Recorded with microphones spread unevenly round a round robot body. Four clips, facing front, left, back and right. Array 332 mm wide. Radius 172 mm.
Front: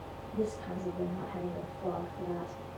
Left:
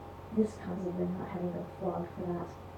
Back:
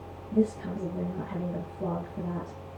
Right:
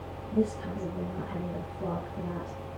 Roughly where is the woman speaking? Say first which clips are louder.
Right 3 dB, back 8 dB; behind right.